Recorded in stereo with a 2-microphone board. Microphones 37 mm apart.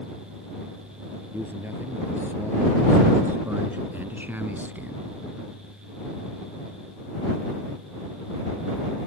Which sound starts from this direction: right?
A man speaking, at 1.3 s.